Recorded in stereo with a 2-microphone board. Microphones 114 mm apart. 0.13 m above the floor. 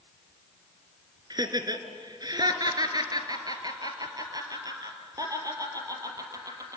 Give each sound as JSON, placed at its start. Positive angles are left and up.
{"t": 1.3, "sound": "laughter", "side_deg": -35, "distance_m": 2.0}